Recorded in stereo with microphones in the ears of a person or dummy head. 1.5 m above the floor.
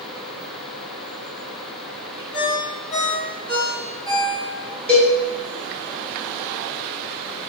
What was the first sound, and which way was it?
A ringtone, 5° left (ahead or behind).